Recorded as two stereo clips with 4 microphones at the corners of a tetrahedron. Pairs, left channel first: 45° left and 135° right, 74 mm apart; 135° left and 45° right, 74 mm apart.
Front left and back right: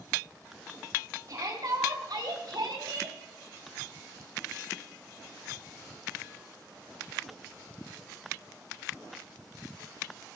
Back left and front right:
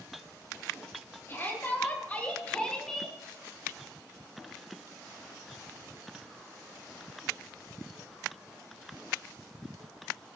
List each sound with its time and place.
1.3 s a shout: 170° right, 3.5 m; by 3.2 s 140° right, 2.5 m